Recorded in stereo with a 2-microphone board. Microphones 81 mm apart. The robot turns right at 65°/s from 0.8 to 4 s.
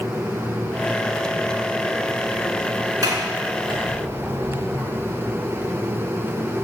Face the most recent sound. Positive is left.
turn(degrees=-70)  # may be behind; listen again after turning